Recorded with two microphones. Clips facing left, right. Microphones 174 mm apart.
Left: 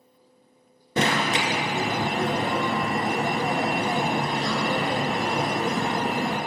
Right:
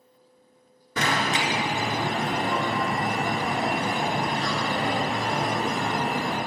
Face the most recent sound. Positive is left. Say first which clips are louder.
# left 2 dB
turn(degrees=30)  # may be behind; listen again after turning